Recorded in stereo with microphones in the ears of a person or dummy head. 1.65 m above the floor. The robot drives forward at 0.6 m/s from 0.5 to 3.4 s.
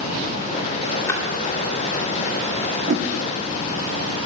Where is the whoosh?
50° right (ahead or behind), 0.7 m; by 3.1 s 45° right (ahead or behind), 0.8 m.